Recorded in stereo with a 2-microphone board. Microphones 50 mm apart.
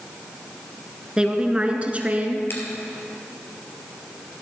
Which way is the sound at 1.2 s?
20° right (ahead or behind).